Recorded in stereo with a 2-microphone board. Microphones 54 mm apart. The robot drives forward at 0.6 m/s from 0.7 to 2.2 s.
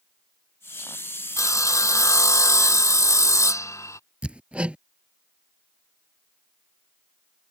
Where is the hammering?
25° right (ahead or behind).